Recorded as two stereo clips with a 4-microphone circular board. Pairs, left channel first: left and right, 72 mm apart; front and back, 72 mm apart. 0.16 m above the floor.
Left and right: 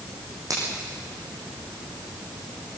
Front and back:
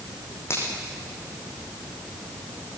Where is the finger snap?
50° right, 6.5 m.